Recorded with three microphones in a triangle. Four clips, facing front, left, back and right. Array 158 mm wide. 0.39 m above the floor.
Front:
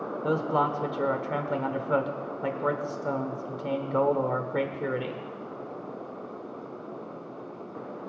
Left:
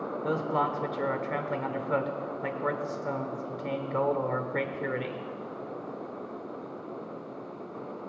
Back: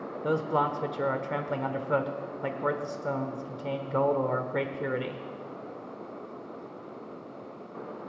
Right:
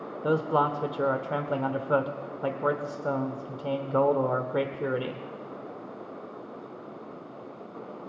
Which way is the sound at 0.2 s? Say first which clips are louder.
Right 4 dB, front 1 dB; 80° right.